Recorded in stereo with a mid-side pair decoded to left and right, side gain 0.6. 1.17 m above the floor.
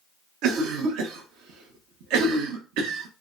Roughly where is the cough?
Right.